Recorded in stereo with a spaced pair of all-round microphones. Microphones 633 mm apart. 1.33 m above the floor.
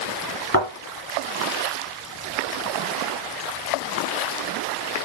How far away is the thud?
About 2.5 m.